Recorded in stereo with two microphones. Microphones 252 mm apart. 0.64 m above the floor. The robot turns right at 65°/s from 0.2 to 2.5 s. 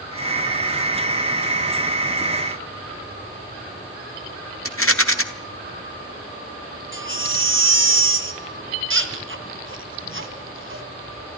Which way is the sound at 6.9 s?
50° right (ahead or behind).